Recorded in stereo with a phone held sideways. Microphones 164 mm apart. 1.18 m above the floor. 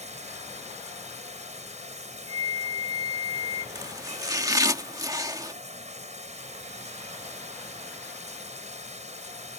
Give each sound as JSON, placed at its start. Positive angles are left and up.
{"t": 0.0, "sound": "running water", "side_deg": -45}
{"t": 2.3, "sound": "a flute", "side_deg": 25}
{"t": 3.8, "sound": "chopping", "side_deg": -20}